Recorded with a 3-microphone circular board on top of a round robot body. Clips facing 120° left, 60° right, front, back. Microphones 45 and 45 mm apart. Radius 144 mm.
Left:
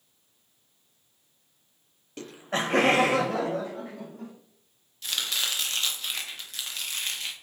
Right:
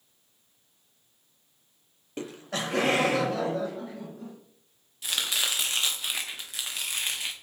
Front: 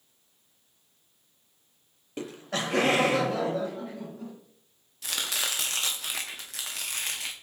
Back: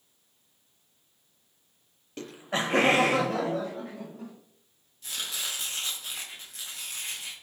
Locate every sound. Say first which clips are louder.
2.2 s laughter: left 3 dB, back 1 dB; 45° right, 0.6 m; by 4.3 s 135° left, 3 m
5.0 s chopping: right 1 dB, front 4 dB; 20° left, 0.7 m